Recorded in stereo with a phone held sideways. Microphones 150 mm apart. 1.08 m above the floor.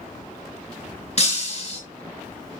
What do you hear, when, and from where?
1.2 s breaking glass: 50° left (ahead or behind), 4 m